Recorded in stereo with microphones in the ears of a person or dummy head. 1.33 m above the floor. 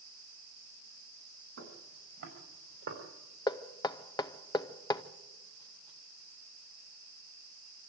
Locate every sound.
1.6 s footsteps: 65° right (ahead or behind), 5.5 m; by 3.0 s 55° right (ahead or behind), 5 m
3.5 s knocking: 20° left (ahead or behind), 0.7 m